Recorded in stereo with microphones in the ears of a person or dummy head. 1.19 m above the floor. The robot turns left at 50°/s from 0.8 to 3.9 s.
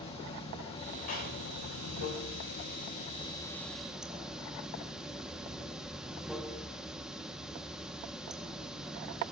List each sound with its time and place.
0.0 s running water: 150° left, 1.9 m; by 9.3 s 5° right, 1.9 m
1.1 s a clap: 50° left (ahead or behind), 8.5 m; by 1.4 s 60° left (ahead or behind), 8.5 m